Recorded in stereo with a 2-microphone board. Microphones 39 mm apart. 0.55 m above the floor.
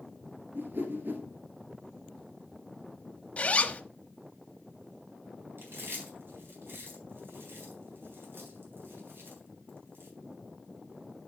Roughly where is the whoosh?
Right.